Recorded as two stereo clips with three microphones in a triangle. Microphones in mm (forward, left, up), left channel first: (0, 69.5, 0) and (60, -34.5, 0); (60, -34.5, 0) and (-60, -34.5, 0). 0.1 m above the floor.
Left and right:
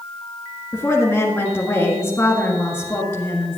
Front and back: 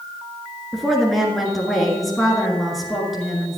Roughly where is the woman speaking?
Left.